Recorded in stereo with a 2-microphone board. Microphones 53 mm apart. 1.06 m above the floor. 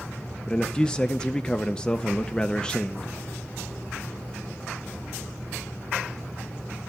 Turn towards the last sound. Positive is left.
turn(degrees=15)  # may be behind; listen again after turning